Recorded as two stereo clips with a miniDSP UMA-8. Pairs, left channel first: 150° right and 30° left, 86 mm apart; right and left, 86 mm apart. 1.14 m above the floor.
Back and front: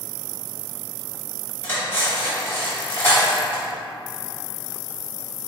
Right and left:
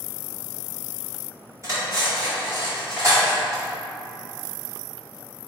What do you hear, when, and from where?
1.6 s cutlery clinking: 145° left, 1.9 m